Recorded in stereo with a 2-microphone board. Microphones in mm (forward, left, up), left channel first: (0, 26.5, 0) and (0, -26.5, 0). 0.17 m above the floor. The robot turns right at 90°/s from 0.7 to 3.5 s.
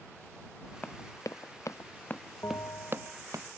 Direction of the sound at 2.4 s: 65° left.